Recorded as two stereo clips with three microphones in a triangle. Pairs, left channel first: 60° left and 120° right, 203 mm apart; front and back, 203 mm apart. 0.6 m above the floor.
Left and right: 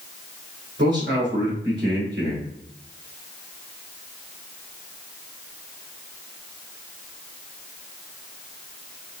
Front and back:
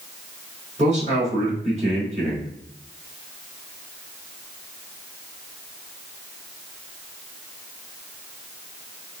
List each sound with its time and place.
0.8 s a man speaking: 130° right, 2.5 m